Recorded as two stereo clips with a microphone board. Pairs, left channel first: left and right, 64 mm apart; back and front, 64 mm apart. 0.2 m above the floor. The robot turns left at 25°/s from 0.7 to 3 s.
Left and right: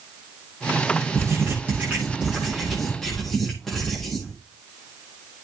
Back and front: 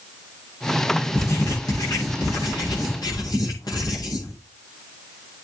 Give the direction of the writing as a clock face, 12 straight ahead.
5 o'clock.